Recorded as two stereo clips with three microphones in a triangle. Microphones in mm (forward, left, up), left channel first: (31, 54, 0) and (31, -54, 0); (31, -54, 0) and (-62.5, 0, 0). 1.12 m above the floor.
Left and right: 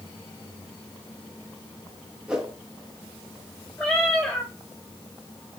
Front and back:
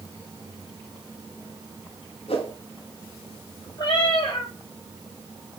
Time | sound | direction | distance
2.3 | a whoosh | 10° right | 1.7 m
3.8 | a cat meowing | 10° left | 3.5 m